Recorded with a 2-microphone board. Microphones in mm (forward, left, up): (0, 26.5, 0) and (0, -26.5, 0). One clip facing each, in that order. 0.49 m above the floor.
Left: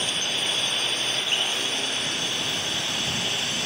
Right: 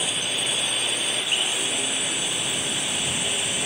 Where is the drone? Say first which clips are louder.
Even; 10° right (ahead or behind); by 3.7 s 15° right (ahead or behind).